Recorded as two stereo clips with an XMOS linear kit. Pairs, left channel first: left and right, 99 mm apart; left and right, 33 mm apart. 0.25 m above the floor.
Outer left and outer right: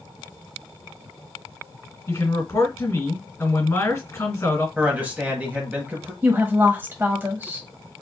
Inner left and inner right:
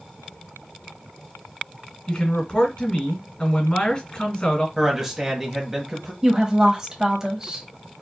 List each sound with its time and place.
2.1 s a man speaking: 35° left (ahead or behind), 2.5 m
4.8 s a man speaking: 15° right (ahead or behind), 1.0 m
6.2 s a woman speaking: 20° right (ahead or behind), 1.1 m